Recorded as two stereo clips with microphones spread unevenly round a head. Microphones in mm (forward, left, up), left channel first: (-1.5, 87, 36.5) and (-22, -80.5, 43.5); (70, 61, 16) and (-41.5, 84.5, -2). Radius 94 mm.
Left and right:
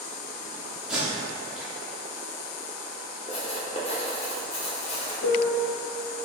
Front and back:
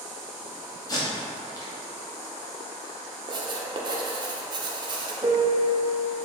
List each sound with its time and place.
0.9 s tape being pulled: 15° right, 0.8 m
3.3 s writing: 125° left, 0.7 m
5.2 s a piano: 105° left, 0.6 m